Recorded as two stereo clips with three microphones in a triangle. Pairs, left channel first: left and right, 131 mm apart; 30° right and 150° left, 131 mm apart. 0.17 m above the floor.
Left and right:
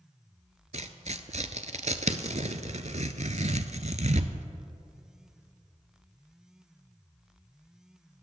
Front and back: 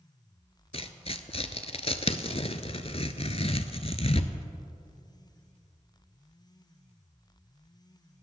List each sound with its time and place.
0.7 s tearing paper: 65° right, 0.7 m